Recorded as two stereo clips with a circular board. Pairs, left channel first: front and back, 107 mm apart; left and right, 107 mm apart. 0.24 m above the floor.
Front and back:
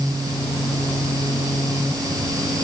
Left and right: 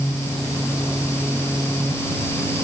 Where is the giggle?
I don't hear a giggle.